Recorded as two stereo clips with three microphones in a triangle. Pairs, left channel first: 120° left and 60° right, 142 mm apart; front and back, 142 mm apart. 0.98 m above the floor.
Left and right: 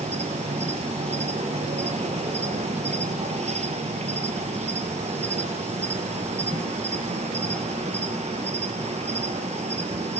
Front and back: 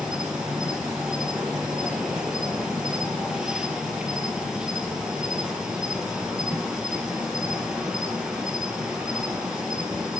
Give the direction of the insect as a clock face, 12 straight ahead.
3 o'clock.